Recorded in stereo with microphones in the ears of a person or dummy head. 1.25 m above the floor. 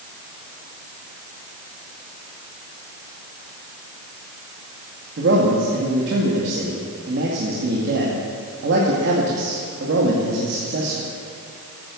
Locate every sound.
5.2 s a man speaking: 60° right (ahead or behind), 2 m